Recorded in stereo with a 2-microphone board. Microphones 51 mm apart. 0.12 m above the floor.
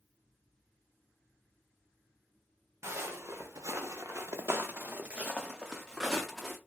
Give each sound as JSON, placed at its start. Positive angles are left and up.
{"t": 2.8, "sound": "footsteps", "side_deg": -65, "distance_m": 1.0}